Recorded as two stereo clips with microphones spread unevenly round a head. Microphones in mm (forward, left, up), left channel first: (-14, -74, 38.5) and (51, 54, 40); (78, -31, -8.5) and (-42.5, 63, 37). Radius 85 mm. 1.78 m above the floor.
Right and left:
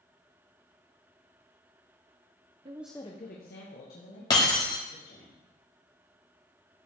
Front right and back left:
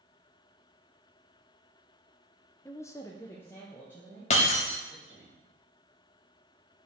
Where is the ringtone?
I don't hear a ringtone.